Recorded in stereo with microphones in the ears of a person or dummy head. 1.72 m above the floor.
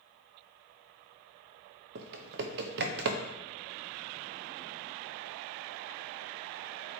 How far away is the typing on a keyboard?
About 0.9 m.